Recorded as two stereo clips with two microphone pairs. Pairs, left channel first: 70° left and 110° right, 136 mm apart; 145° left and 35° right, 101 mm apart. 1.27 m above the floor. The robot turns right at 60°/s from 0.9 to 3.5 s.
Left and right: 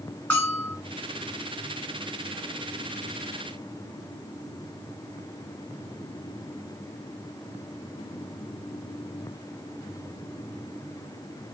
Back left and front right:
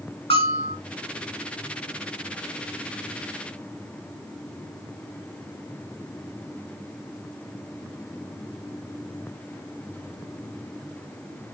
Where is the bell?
145° left, 5 m.